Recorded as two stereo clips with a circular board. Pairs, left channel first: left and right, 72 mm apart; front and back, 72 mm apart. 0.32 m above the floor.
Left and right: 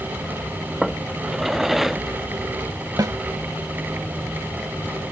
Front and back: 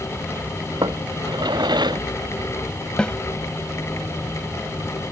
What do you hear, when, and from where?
0.8 s a drawer: 175° right
3.0 s a snare drum: 75° right